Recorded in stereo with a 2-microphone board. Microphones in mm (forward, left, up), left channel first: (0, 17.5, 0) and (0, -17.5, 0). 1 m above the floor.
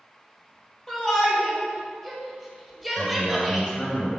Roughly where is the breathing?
No breathing in this recording.